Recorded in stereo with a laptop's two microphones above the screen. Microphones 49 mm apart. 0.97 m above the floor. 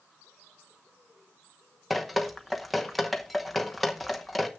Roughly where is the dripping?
Centre.